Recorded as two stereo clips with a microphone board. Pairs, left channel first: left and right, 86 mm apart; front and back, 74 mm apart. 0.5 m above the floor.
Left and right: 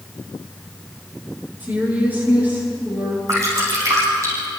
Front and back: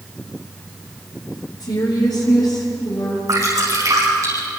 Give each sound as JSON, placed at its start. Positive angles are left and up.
{"t": 1.6, "sound": "a woman speaking", "azimuth_deg": -20, "distance_m": 9.5}
{"t": 3.3, "sound": "dripping", "azimuth_deg": -140, "distance_m": 7.5}